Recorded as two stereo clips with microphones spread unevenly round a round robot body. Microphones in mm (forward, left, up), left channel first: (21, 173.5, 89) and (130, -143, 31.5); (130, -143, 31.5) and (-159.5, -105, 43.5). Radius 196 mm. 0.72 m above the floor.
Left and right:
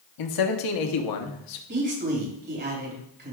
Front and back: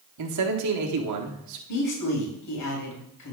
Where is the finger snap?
I don't hear a finger snap.